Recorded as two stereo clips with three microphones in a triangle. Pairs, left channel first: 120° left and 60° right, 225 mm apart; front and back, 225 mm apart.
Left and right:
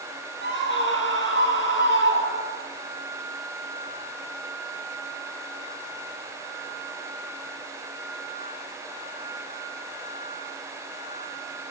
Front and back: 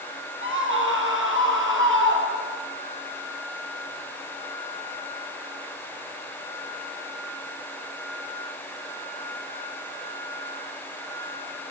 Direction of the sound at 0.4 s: 155° left.